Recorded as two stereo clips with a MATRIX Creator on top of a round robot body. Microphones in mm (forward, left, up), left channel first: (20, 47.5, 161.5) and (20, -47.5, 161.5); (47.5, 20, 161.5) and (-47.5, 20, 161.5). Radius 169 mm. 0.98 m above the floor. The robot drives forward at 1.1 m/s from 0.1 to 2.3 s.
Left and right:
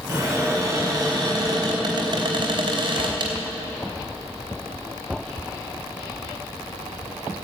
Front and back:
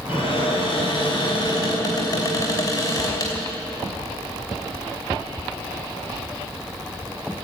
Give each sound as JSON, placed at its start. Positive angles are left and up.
{"t": 0.1, "sound": "a cupboard door", "azimuth_deg": -30, "distance_m": 5.0}